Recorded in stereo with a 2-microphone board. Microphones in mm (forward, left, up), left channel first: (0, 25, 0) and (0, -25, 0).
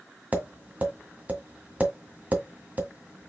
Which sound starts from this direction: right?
Tapping, at 0.3 s.